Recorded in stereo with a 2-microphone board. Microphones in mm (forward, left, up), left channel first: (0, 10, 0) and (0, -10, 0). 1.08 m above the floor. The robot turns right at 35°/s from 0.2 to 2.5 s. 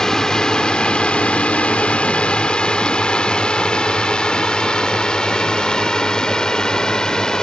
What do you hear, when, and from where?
0.0 s a drone: 30° left (ahead or behind)